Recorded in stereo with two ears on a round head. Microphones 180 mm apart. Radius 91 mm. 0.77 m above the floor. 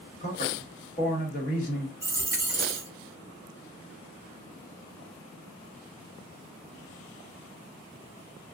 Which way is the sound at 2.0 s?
15° right (ahead or behind).